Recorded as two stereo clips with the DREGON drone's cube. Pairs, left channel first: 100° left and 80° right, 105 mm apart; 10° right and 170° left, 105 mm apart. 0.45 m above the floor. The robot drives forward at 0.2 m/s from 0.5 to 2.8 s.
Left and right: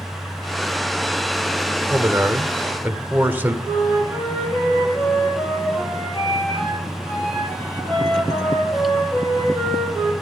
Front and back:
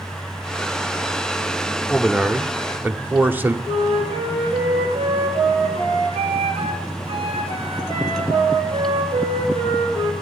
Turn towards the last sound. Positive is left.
turn(degrees=165)